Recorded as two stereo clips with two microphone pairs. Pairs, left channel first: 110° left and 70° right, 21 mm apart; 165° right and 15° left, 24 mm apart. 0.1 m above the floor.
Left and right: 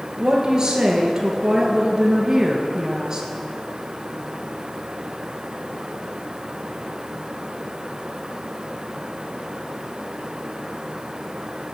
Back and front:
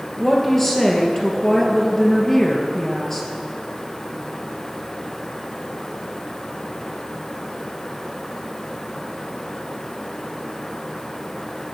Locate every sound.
0.2 s a woman speaking: 105° right, 2 m